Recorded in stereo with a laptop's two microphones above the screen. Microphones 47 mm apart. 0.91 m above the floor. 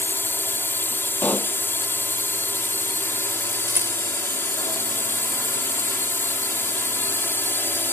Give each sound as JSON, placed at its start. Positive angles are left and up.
{"t": 0.0, "sound": "a drone", "side_deg": 60}
{"t": 1.2, "sound": "a pop", "side_deg": 40}
{"t": 3.7, "sound": "a rattle", "side_deg": -75}